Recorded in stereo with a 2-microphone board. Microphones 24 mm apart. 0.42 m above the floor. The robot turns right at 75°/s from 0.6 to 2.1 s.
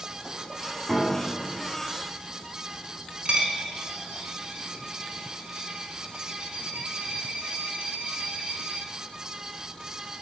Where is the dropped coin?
70° right (ahead or behind), 0.7 m.